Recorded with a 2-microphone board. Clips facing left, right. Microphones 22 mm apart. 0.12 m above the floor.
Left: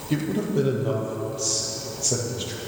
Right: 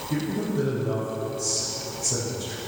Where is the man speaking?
50° left (ahead or behind), 4 m.